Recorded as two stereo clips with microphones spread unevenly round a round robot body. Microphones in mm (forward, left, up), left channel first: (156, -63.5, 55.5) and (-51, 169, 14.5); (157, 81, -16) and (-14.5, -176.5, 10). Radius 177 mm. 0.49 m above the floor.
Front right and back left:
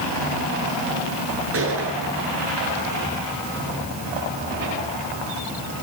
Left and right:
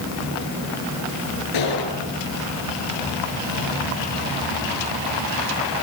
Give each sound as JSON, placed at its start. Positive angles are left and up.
{"t": 1.5, "sound": "a gunshot", "azimuth_deg": 85, "distance_m": 9.0}